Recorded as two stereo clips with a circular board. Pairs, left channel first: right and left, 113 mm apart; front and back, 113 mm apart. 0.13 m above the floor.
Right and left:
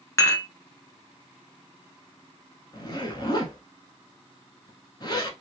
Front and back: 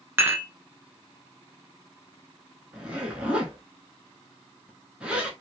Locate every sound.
0.2 s dishes clattering: 130° right, 0.8 m
2.7 s a zipper: 105° right, 0.9 m